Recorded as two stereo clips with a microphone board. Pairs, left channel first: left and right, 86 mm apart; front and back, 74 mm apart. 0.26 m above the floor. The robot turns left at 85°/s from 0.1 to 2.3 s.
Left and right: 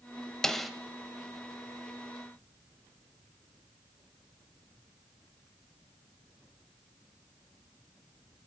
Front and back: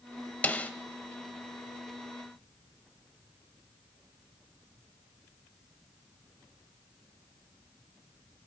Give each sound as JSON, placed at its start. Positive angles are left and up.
{"t": 0.4, "sound": "a snare drum", "azimuth_deg": 20, "distance_m": 0.6}